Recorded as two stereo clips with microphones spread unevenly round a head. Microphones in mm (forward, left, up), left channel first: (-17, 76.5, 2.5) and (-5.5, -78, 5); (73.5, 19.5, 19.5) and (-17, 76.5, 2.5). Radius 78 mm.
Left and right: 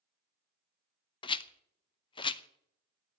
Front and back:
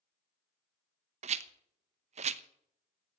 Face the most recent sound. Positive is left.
turn(degrees=155)